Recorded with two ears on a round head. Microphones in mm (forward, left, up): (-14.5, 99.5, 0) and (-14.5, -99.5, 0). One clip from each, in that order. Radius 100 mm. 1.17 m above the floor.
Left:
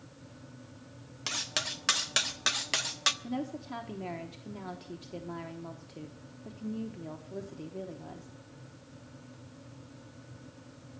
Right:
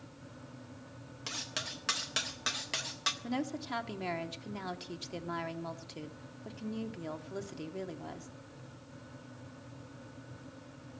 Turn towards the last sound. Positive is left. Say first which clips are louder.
# right 1 dB
turn(degrees=-45)  # may be behind; listen again after turning